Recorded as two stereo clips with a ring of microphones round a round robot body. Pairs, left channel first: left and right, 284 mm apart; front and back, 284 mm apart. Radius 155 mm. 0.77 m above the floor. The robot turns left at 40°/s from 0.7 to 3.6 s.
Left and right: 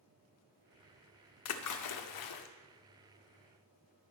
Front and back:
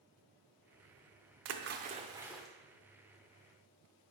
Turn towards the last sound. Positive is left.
turn(degrees=45)